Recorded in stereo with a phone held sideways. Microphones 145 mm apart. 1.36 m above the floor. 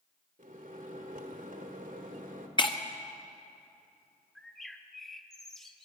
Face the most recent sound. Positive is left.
turn(degrees=5)  # may be behind; listen again after turning